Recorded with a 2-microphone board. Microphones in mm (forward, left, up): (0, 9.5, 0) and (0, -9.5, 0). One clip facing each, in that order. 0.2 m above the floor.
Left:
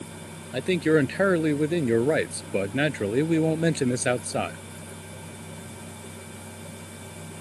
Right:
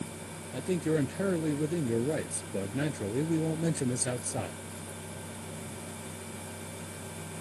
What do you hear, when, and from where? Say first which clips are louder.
0.5 s a man speaking: left 8 dB; 55° left (ahead or behind)